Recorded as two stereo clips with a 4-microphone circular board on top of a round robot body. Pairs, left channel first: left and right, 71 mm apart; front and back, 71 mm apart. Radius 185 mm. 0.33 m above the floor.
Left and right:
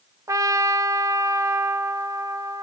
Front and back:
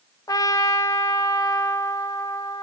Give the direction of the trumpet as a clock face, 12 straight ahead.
1 o'clock.